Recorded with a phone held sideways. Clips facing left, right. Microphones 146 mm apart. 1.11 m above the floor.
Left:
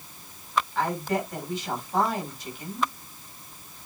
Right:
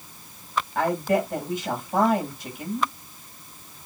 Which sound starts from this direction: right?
A woman speaking, at 0.8 s.